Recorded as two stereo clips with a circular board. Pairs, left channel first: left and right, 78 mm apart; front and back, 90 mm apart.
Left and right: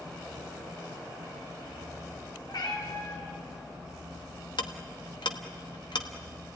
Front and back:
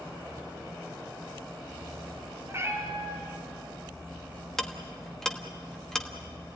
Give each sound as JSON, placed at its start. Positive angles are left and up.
{"t": 2.5, "sound": "a cat meowing", "azimuth_deg": 120, "distance_m": 3.5}
{"t": 4.6, "sound": "ticking", "azimuth_deg": 85, "distance_m": 1.4}